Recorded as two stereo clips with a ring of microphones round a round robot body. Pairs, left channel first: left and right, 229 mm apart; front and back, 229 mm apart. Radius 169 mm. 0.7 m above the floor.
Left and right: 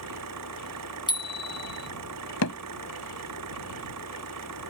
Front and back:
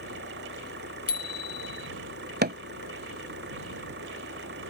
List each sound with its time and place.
0.0 s an engine running: 120° right
1.1 s a bicycle bell: 20° left
2.4 s hammering: 130° left